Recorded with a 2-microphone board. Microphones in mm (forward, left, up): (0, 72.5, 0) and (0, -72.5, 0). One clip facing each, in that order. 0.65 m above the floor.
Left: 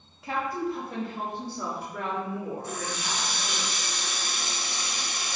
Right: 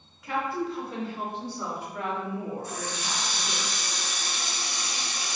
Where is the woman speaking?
30° left (ahead or behind), 0.9 m; by 3.6 s 55° left (ahead or behind), 3.5 m.